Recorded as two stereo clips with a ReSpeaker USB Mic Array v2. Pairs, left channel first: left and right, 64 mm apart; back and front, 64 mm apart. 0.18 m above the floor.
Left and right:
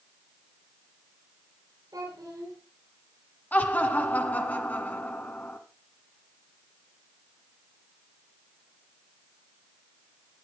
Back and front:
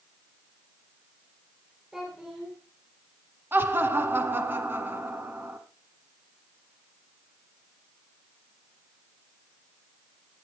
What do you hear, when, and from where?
1.9 s a child speaking: 85° right, 5 m
3.5 s laughter: 40° left, 1.7 m